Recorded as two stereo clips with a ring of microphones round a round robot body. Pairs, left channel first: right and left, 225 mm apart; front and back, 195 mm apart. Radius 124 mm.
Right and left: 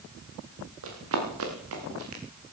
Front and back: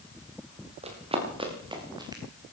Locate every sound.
0.8 s running footsteps: 120° left, 5.5 m; by 2.2 s 110° left, 5 m